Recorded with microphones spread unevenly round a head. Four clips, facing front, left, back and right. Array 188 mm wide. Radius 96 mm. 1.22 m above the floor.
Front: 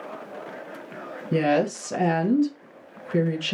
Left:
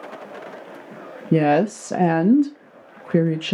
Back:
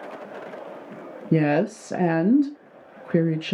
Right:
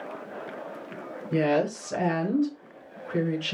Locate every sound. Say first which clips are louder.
1.3 s a woman speaking: left 7 dB, back 1 dB; 115° left, 0.8 m